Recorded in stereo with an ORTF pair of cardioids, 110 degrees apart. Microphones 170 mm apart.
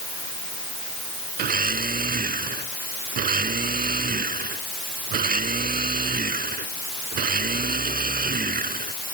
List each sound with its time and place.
1.4 s a blender: 60° right